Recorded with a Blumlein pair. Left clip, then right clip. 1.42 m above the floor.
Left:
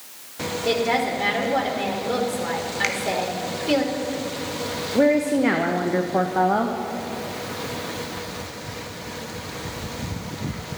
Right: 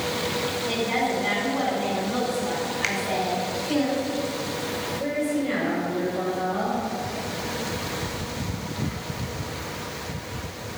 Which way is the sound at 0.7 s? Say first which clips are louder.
Left 6 dB; 45° left.